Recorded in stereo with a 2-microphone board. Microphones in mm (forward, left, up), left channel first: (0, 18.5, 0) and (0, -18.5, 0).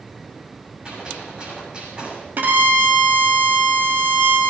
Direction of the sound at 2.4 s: 45° right (ahead or behind).